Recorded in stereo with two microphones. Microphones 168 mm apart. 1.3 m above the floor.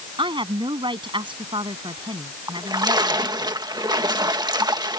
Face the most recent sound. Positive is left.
turn(degrees=-25)  # may be behind; listen again after turning